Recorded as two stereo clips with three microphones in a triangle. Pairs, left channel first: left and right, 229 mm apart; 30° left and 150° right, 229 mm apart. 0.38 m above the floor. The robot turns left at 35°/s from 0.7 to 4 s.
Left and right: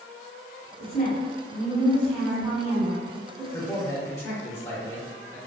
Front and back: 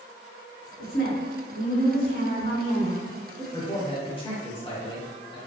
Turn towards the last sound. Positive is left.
turn(degrees=30)